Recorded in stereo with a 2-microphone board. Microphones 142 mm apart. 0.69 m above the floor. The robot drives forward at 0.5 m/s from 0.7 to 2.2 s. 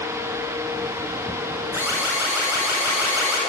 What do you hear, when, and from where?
1.7 s an alarm: 20° right (ahead or behind), 8 m; by 3.4 s 15° right (ahead or behind), 8 m